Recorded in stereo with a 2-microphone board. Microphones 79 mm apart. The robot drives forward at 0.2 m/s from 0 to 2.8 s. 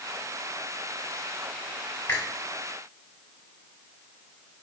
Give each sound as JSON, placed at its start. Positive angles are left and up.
{"t": 2.1, "sound": "a finger snap", "side_deg": 20, "distance_m": 1.7}